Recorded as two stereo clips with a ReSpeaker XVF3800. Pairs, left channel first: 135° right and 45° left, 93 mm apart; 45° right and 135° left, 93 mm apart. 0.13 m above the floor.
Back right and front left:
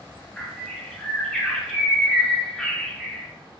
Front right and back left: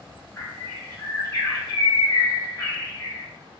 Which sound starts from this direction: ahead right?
A bird, at 0.4 s.